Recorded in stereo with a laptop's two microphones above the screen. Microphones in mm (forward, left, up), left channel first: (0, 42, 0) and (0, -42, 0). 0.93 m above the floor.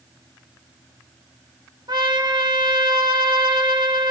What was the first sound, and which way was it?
A trumpet, 65° right (ahead or behind).